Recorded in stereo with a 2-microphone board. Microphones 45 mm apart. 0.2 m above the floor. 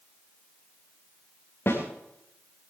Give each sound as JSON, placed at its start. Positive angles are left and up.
{"t": 1.7, "sound": "a snare drum", "side_deg": 55, "distance_m": 5.5}